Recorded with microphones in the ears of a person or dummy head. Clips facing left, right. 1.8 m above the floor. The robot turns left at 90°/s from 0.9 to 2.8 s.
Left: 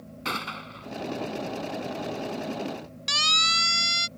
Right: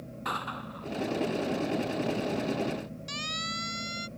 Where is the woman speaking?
I don't hear a woman speaking.